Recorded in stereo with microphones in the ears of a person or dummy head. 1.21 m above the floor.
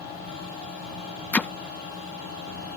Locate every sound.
1.3 s hammering: 5° left (ahead or behind)